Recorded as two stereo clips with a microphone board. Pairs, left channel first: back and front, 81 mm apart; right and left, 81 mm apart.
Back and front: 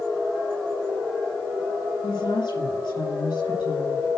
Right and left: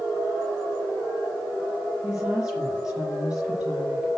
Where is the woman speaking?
175° left, 6.5 m.